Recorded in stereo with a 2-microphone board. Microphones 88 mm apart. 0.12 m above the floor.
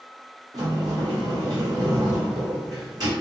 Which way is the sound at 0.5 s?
45° right (ahead or behind).